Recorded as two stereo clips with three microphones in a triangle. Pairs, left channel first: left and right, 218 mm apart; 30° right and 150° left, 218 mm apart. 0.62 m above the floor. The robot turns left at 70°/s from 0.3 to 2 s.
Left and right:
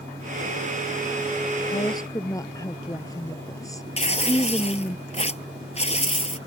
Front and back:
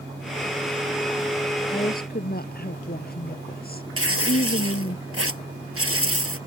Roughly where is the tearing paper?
Behind left.